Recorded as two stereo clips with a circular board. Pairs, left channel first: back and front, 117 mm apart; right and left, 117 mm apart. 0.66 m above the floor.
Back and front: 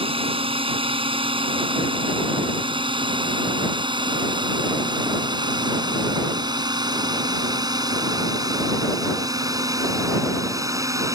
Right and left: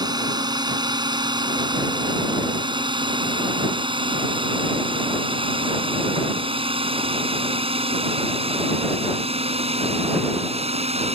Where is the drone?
35° left; by 11.2 s 60° left.